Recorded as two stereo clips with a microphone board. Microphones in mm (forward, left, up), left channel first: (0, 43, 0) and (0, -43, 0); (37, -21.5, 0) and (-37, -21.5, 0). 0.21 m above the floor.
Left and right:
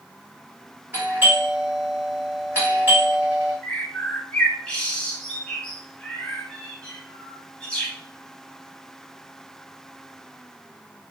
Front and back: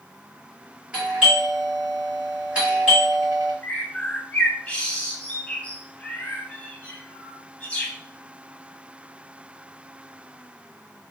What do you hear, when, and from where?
0.9 s a doorbell: 130° right, 2.0 m
3.6 s a bird: 35° left, 0.5 m